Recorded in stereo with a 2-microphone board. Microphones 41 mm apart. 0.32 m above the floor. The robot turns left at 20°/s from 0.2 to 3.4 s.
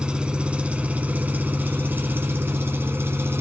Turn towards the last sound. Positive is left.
turn(degrees=-90)